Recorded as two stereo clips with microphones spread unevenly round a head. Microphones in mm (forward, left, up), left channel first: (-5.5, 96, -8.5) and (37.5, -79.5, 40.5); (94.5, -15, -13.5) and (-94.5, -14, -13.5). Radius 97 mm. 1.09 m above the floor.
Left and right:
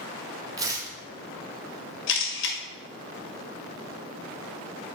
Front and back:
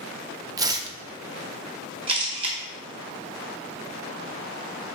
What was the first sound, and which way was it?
Tearing paper, 120° right.